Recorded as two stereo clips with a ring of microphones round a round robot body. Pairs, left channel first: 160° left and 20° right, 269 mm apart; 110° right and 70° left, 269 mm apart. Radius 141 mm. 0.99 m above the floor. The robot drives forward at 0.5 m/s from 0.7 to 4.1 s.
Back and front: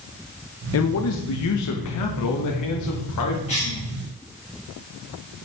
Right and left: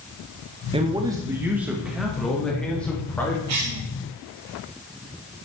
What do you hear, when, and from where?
0.7 s a man speaking: 135° left, 0.8 m; by 3.4 s 165° left, 1.9 m
3.5 s a cough: 90° left, 1.9 m; by 3.8 s 95° left, 1.9 m